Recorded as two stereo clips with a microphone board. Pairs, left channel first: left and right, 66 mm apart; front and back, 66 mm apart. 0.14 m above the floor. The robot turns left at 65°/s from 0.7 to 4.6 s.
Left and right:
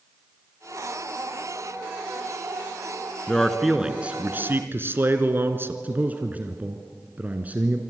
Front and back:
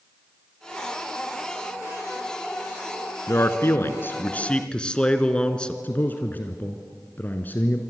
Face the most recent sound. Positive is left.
turn(degrees=-40)